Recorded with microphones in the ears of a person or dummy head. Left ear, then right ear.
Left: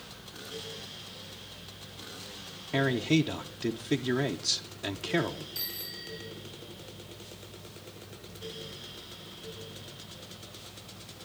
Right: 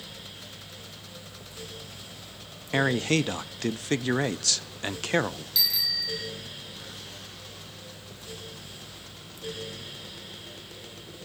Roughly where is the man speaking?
Right.